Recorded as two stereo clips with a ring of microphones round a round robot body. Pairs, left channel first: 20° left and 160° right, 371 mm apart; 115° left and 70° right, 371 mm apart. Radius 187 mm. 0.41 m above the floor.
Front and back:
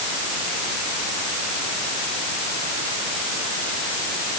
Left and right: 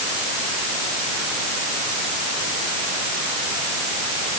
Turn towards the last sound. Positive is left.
No sound to turn to.